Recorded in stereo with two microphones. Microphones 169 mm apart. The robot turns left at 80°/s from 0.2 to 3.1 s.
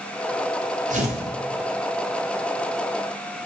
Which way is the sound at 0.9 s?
50° right (ahead or behind).